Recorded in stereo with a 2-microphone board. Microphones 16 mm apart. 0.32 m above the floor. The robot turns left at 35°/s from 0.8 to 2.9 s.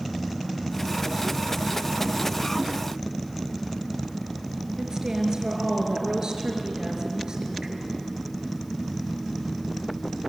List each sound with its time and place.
4.8 s a woman speaking: 45° right (ahead or behind), 5 m